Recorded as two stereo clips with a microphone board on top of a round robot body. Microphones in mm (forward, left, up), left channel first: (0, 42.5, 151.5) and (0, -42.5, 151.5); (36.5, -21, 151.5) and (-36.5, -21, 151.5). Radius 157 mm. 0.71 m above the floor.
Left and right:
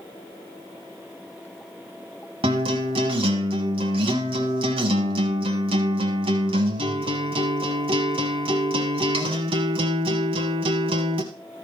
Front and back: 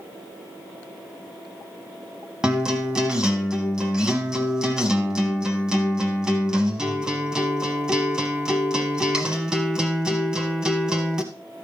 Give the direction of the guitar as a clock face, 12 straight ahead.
3 o'clock.